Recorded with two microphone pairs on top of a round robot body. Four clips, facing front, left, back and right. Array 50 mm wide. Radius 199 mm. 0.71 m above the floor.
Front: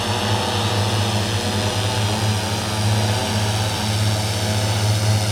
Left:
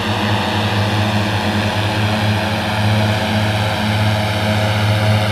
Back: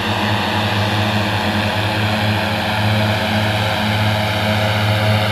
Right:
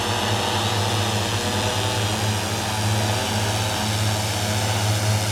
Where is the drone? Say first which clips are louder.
Left 5 dB, back 4 dB; 145° left.